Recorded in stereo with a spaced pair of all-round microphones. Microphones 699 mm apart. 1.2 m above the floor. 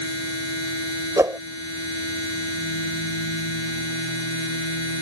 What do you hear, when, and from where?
0.0 s a machine running: 40° left (ahead or behind)
1.2 s a whoosh: 5° right (ahead or behind)